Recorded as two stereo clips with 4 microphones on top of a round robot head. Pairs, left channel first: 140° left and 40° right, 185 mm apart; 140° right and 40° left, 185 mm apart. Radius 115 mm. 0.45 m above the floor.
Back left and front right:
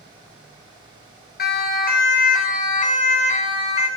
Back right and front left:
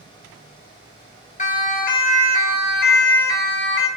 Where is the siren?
175° left, 4.5 m; by 3.9 s 165° right, 6 m.